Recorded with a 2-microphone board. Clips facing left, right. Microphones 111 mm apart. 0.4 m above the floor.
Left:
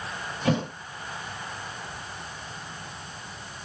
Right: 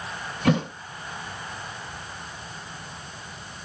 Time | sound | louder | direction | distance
0.4 | a thud | right 3 dB | 70° right (ahead or behind) | 1.3 m